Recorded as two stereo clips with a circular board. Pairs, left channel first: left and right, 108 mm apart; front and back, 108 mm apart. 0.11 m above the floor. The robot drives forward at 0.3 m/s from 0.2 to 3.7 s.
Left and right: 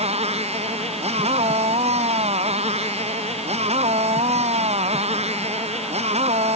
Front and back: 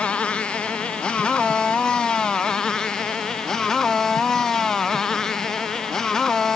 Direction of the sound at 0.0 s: 80° right.